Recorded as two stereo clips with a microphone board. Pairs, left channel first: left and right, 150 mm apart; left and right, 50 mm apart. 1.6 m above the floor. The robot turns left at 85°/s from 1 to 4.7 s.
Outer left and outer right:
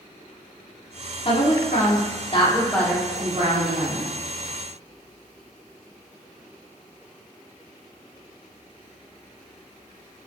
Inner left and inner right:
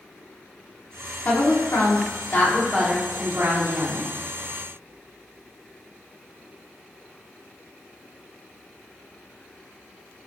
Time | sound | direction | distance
1.2 | a woman speaking | 140° left | 4.5 m